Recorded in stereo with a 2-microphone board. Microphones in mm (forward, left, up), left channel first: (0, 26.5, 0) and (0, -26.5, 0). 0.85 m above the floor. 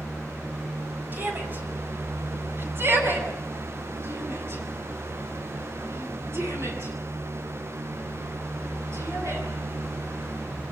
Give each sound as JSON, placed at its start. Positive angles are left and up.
{"t": 1.1, "sound": "a shout", "side_deg": -40, "distance_m": 6.0}